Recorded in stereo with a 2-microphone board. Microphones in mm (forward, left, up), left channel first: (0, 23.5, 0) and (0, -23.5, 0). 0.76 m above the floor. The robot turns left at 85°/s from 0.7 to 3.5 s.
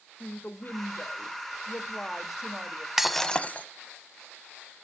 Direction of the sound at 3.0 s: 170° right.